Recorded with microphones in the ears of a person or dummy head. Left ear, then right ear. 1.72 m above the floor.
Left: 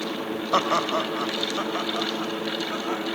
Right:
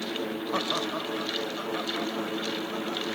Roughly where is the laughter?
Left.